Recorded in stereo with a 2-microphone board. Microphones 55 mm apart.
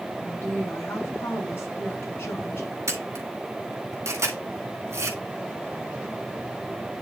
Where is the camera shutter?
60° right (ahead or behind), 2 m.